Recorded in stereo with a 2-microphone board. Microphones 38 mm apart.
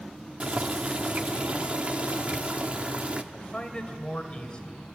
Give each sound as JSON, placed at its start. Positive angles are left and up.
{"t": 0.4, "sound": "boiling", "side_deg": -35, "distance_m": 1.1}
{"t": 3.3, "sound": "a man speaking", "side_deg": 25, "distance_m": 2.5}